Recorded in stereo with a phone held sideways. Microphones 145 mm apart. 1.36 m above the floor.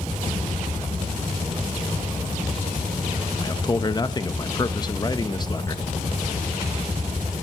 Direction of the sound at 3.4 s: 30° left (ahead or behind).